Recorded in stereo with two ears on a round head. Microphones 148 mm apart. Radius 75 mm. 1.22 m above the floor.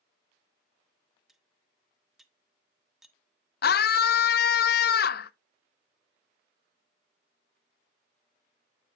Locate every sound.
1.3 s cutlery clinking: centre (ahead or behind), 0.6 m
3.6 s a scream: 65° left (ahead or behind), 0.5 m